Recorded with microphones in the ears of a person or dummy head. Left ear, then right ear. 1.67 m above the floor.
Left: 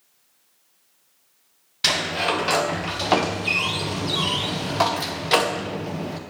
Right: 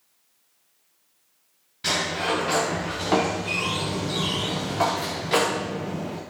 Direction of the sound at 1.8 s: 30° left (ahead or behind).